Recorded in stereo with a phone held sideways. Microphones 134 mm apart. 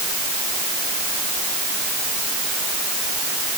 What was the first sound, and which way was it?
Only background noise.